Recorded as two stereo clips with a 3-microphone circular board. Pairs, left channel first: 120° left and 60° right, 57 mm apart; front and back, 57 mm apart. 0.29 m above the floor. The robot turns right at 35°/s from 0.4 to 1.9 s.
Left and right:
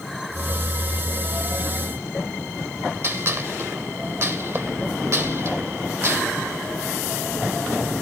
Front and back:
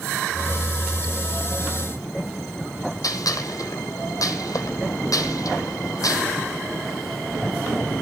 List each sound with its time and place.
3.0 s a gunshot: 15° right, 2.5 m